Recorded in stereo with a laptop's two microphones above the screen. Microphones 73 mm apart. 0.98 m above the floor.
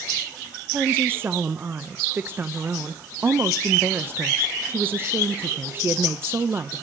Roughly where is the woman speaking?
Right.